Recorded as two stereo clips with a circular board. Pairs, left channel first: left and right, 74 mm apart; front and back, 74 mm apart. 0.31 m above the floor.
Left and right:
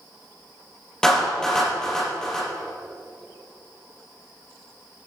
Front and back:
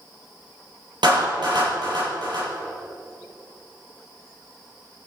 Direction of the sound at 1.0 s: 175° left.